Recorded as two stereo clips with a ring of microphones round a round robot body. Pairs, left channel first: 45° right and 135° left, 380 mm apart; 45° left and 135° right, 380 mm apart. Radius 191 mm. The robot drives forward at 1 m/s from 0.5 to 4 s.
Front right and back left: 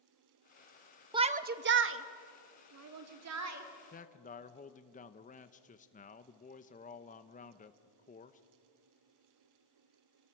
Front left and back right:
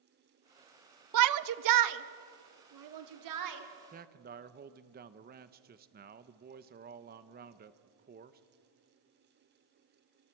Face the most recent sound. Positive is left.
turn(degrees=-95)